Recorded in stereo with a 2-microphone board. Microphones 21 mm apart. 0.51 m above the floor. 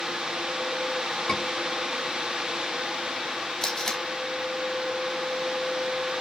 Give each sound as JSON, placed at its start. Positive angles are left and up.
{"t": 1.3, "sound": "a scream", "side_deg": 35, "distance_m": 7.0}
{"t": 3.6, "sound": "tape being pulled", "side_deg": 25, "distance_m": 4.0}